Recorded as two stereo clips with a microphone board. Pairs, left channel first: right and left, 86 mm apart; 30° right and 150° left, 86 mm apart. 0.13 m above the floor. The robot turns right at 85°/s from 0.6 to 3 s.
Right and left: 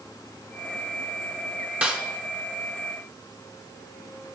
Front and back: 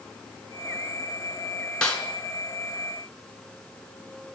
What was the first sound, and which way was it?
A snare drum, 35° left.